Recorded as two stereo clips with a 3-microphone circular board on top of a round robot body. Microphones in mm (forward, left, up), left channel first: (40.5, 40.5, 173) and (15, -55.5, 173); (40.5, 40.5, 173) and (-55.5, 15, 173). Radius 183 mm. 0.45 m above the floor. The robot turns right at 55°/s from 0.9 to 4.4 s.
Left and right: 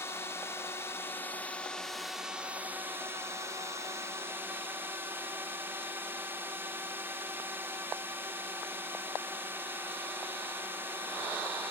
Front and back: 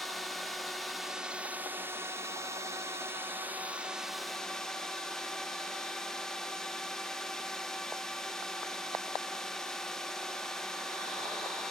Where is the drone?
105° left; by 11.7 s 65° right.